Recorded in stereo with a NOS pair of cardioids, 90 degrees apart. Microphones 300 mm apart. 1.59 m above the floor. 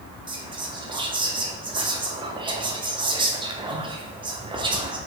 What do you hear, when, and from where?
0.3 s whispering: 15° right, 0.6 m